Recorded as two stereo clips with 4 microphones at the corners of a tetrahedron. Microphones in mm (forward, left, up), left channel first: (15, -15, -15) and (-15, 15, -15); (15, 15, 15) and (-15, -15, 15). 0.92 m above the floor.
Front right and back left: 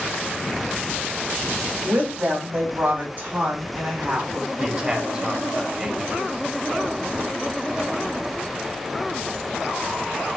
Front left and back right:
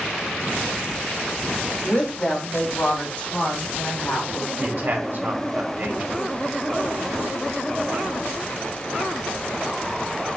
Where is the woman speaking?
95° left, 1.3 m; by 4.5 s 85° left, 3 m.